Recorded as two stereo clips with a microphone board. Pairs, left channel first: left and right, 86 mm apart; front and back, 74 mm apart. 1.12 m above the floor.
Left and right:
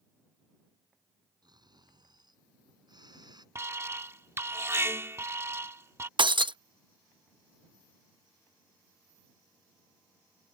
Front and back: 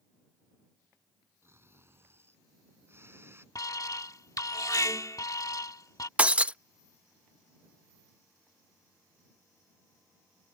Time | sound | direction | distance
1.4 | snoring | 125° right | ?
3.5 | an alarm | 35° right | ?
6.2 | breaking glass | 105° right | ?